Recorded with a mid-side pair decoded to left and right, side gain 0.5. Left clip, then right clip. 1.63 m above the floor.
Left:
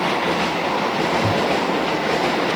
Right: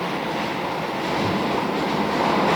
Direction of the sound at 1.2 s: 50° left.